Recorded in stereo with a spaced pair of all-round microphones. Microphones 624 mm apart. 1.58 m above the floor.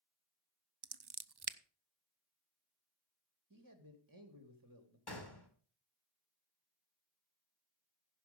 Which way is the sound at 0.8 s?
40° right (ahead or behind).